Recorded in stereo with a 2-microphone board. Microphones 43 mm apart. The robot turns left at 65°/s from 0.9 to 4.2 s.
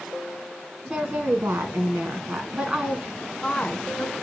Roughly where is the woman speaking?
Ahead right.